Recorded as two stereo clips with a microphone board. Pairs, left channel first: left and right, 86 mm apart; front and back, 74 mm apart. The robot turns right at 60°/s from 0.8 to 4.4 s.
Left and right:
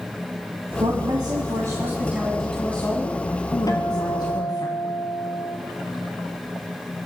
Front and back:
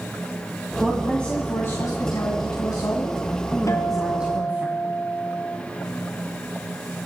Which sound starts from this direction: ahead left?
A guitar, at 3.7 s.